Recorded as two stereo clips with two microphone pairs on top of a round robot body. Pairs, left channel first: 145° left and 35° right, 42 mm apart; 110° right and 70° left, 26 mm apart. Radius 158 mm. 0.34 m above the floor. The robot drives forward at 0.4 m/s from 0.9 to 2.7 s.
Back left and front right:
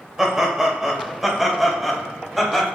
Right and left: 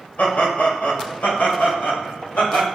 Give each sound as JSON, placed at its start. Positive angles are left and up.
{"t": 0.2, "sound": "laughter", "azimuth_deg": -110, "distance_m": 3.5}